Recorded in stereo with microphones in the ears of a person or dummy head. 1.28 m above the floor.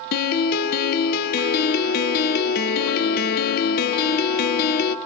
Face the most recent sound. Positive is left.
turn(degrees=55)  # may be behind; listen again after turning